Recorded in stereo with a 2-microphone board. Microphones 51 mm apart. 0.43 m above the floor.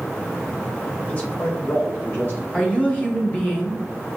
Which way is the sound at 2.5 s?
25° left (ahead or behind).